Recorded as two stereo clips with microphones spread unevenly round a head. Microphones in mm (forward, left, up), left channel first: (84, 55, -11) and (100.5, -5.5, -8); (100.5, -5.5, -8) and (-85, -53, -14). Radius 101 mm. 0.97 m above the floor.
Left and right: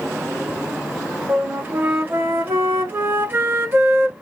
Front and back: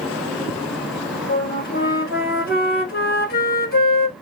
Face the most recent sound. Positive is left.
turn(degrees=-25)